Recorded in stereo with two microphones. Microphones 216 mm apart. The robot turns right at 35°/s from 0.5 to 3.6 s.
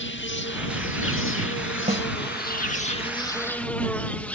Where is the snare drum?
45° right (ahead or behind).